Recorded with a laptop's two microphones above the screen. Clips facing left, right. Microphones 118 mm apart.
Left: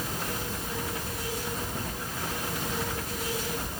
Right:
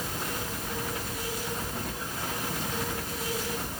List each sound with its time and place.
Only background noise.